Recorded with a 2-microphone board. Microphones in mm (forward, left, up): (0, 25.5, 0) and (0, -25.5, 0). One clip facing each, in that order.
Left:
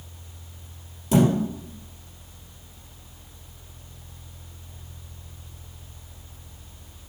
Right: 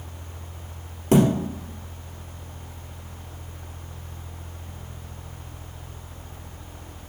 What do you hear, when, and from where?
1.1 s a thud: 45° right (ahead or behind), 2.5 m